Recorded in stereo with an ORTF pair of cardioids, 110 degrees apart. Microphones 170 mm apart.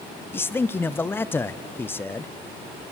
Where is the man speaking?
15° left, 0.6 m.